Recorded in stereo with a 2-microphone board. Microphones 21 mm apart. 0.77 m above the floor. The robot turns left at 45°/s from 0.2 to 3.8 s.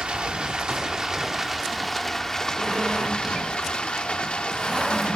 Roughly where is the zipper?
Right.